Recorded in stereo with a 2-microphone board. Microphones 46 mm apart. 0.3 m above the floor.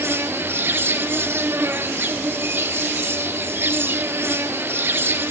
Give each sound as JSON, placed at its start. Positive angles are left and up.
{"t": 0.0, "sound": "an insect", "side_deg": -60, "distance_m": 1.7}